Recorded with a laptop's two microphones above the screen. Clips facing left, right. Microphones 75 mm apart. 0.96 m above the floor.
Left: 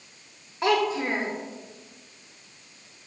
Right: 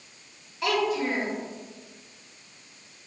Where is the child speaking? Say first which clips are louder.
Left 2 dB; 30° left (ahead or behind), 0.6 m.